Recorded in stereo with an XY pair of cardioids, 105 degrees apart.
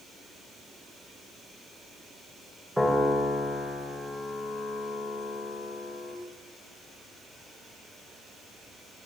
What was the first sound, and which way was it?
A piano, straight ahead.